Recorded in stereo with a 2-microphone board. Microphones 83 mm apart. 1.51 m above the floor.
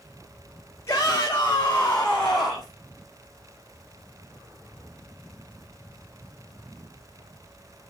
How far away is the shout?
About 2 m.